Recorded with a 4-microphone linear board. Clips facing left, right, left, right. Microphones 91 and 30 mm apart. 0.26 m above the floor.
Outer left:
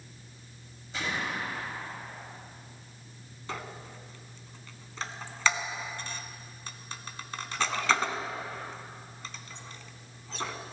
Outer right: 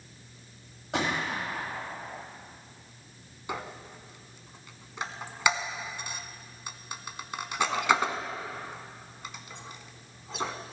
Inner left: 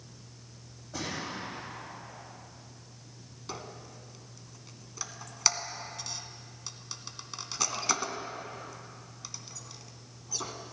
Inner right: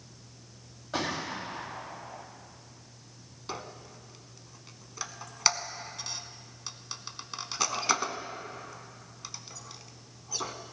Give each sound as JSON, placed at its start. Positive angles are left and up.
{"t": 0.9, "sound": "a gunshot", "side_deg": -80, "distance_m": 3.0}
{"t": 3.5, "sound": "a squeak", "side_deg": -15, "distance_m": 0.8}